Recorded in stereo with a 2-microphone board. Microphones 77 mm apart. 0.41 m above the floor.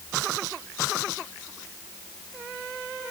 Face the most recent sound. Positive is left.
No sound to turn to.